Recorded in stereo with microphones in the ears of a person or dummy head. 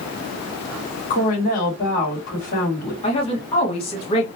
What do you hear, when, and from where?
1.1 s a woman speaking: 45° left (ahead or behind), 2.5 m
3.0 s a woman speaking: 30° left (ahead or behind), 1.5 m